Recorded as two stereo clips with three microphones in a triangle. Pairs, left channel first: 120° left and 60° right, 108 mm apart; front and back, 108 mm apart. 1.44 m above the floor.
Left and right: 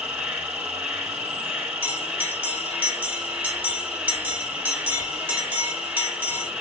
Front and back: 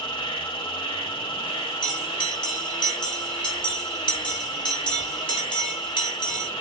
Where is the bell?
10° left, 1.4 m.